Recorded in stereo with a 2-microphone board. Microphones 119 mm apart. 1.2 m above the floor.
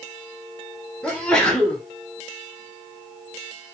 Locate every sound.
1.0 s a sneeze: 5° left (ahead or behind), 3.5 m